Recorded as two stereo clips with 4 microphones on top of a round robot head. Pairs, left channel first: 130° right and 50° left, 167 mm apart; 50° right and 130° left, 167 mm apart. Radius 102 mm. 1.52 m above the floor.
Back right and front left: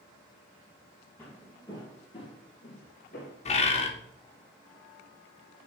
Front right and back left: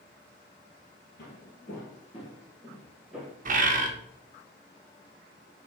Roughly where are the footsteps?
Ahead right.